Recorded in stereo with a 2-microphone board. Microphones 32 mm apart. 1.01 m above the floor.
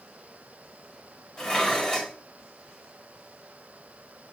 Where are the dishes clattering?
30° left (ahead or behind), 1.3 m.